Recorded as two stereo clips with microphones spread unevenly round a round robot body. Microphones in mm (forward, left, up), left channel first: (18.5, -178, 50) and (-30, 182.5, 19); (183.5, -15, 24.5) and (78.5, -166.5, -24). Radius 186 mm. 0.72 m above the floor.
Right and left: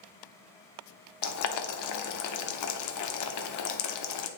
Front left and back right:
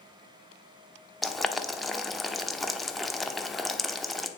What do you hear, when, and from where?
1.2 s boiling: 35° right, 1.1 m